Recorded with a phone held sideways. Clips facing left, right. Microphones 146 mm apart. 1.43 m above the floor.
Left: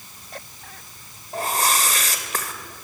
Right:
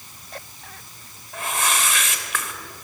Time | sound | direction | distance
1.3 | a whoosh | 40° left (ahead or behind) | 2.5 m